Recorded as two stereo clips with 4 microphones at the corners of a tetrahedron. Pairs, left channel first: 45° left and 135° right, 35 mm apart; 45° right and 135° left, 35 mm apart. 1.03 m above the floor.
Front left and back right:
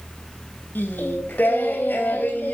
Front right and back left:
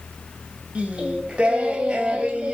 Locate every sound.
0.8 s singing: 75° left, 3 m